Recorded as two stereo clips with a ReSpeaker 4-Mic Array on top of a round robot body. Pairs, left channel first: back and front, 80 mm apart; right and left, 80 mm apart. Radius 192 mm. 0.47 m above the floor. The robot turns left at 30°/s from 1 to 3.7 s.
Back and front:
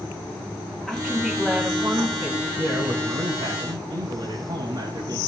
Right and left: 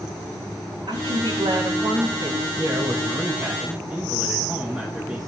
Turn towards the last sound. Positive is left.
turn(degrees=20)